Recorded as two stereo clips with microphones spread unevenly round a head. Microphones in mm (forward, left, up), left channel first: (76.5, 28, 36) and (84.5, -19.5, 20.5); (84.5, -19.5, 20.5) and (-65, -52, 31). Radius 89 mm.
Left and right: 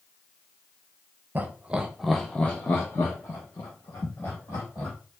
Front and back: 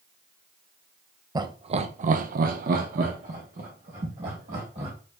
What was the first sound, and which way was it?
Laughter, 105° right.